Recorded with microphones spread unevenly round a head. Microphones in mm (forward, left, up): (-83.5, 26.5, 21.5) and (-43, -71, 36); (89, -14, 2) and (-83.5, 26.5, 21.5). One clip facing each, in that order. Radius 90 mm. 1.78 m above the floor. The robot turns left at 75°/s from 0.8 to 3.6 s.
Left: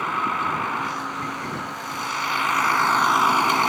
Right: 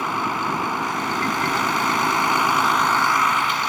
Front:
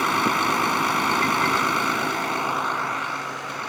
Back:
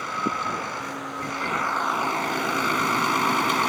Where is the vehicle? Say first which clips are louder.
Right 1 dB, front 6 dB; 5° left; by 3.7 s 155° left.